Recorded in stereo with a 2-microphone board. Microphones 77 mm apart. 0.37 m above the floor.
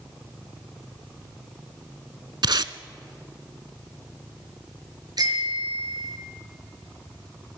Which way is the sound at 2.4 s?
70° right (ahead or behind).